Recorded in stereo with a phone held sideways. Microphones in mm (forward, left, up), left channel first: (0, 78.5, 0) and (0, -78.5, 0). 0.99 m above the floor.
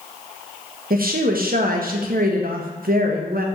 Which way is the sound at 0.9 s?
70° right (ahead or behind).